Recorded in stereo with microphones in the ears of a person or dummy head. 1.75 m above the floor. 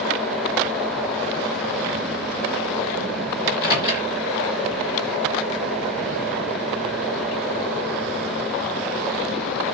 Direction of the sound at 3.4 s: 50° left (ahead or behind).